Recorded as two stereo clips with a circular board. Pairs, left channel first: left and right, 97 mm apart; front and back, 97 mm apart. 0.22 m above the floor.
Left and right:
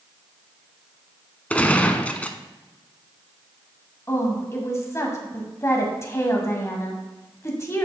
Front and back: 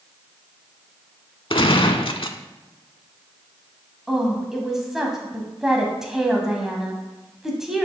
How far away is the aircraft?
I don't hear an aircraft.